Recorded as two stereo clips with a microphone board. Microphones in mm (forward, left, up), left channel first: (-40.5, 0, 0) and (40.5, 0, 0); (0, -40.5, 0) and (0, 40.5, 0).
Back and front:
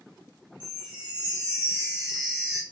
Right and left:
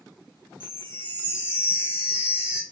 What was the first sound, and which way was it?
A chime, 70° left.